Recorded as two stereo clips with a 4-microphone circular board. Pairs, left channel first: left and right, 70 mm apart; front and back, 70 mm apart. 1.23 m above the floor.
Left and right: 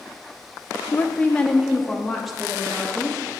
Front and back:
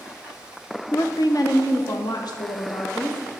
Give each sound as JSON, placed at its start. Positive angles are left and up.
{"t": 0.9, "sound": "a woman speaking", "azimuth_deg": 35, "distance_m": 0.5}